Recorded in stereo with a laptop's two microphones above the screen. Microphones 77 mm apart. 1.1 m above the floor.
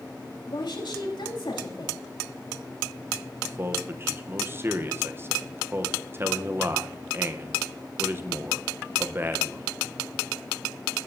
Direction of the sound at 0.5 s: 80° left.